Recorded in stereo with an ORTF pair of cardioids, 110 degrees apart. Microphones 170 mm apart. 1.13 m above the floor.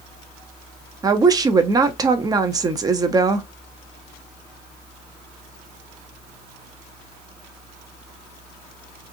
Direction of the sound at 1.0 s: 20° right.